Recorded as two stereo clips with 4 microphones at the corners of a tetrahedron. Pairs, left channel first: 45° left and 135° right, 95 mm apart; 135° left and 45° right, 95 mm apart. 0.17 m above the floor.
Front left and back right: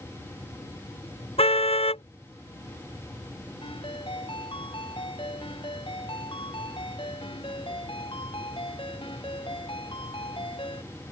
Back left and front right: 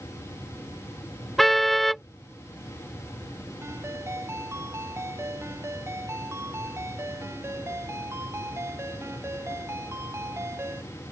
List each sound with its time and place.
1.4 s a car horn: 45° left
3.6 s a ringtone: 20° left